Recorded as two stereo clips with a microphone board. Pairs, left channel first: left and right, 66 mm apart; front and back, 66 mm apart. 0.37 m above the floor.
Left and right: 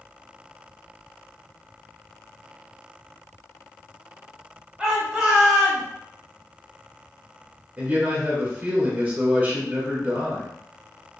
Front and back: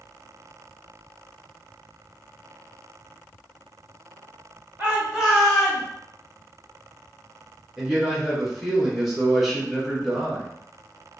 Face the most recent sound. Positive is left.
turn(degrees=-100)